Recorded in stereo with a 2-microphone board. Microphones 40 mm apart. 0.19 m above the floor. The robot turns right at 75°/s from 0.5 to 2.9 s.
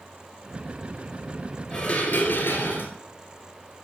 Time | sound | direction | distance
1.7 | dishes clattering | 35° left | 2 m